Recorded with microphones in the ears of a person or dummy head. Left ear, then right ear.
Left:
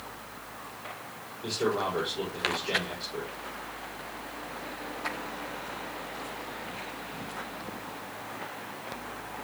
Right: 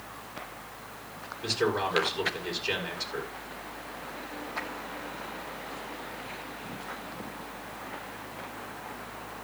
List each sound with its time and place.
1.4 s a man speaking: 50° right (ahead or behind), 7 m